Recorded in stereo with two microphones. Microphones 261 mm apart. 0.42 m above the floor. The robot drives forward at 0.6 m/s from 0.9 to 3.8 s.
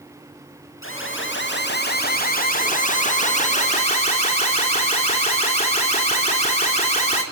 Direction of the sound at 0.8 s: 50° left (ahead or behind).